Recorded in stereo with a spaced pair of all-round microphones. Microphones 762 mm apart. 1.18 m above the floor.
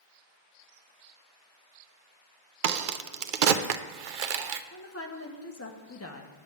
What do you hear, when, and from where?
2.6 s a crack: 75° right (ahead or behind), 0.7 m
4.7 s a woman speaking: 20° left (ahead or behind), 1.0 m